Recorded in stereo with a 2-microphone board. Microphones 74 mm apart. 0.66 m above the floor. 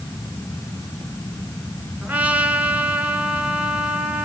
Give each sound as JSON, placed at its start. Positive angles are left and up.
{"t": 2.0, "sound": "a trumpet", "side_deg": -20, "distance_m": 2.5}